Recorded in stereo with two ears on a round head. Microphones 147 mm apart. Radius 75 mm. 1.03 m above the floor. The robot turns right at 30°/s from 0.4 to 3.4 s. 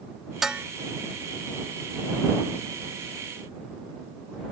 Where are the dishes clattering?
5° right (ahead or behind); by 0.7 s 10° right (ahead or behind).